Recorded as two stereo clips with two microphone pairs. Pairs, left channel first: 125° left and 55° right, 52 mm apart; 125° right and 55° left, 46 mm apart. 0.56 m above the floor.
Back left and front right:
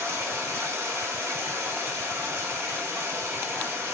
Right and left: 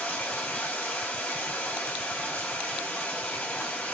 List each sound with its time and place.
0.0 s running water: 70° right, 1.2 m